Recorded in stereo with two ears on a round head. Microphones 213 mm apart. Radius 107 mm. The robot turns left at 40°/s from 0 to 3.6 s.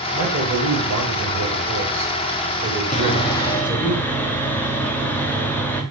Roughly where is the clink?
No clink in this recording.